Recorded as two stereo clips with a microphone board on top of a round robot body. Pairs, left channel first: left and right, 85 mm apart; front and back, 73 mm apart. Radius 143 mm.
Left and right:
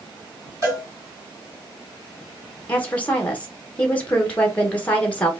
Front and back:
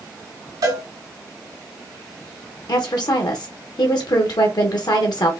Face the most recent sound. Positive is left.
turn(degrees=15)